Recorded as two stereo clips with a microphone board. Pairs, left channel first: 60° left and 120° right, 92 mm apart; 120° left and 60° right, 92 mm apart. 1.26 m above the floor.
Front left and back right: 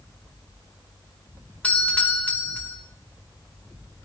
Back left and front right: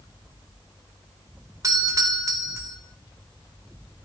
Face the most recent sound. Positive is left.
turn(degrees=-15)